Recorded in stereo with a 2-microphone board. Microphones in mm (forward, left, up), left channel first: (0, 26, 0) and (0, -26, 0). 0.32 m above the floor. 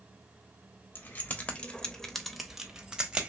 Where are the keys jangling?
35° left (ahead or behind), 0.7 m; by 3.3 s 20° right (ahead or behind), 0.9 m.